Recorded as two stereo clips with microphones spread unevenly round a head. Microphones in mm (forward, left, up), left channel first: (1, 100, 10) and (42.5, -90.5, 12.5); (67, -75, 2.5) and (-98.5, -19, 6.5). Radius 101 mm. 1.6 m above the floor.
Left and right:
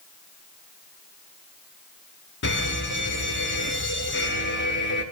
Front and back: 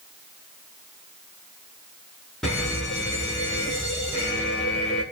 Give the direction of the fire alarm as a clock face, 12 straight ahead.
10 o'clock.